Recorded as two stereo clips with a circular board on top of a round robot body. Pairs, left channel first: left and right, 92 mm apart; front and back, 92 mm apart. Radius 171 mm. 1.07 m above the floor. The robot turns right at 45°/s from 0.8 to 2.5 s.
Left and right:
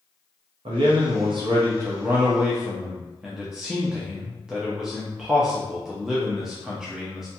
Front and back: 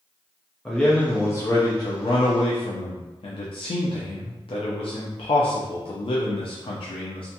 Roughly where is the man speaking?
Right.